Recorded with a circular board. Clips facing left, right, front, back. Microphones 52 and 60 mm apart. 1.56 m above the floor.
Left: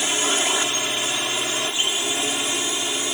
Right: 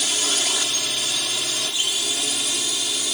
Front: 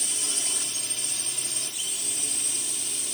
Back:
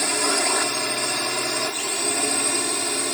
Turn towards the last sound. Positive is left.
turn(degrees=150)